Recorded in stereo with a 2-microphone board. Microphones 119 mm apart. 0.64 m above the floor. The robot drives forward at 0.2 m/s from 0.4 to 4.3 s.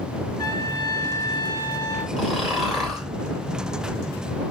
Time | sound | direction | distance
0.4 | a trumpet | 30° left (ahead or behind) | 3 m
2.2 | snoring | 5° right (ahead or behind) | 3.5 m